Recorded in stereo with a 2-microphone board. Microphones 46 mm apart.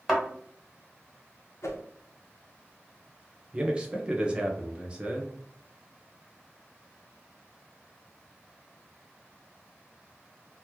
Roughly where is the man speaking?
Right.